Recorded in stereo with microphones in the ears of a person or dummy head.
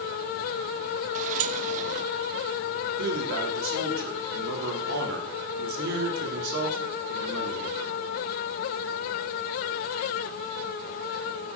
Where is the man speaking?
60° right (ahead or behind), 3.5 m.